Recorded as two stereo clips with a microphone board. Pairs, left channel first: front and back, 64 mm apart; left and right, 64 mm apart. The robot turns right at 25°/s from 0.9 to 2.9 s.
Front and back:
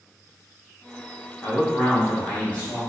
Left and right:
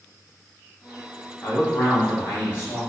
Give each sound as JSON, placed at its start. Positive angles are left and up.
{"t": 1.4, "sound": "a man speaking", "azimuth_deg": 35, "distance_m": 1.1}